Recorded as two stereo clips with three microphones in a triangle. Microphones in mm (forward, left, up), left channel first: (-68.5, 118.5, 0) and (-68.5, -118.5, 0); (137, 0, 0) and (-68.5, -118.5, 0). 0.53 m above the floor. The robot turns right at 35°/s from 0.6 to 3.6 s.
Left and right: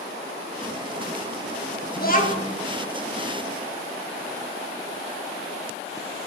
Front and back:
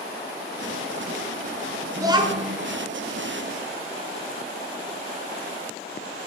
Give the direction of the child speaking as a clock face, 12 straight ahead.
7 o'clock.